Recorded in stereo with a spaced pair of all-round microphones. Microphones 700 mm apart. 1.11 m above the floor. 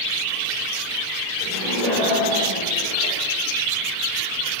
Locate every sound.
1.4 s laughter: 85° left, 4 m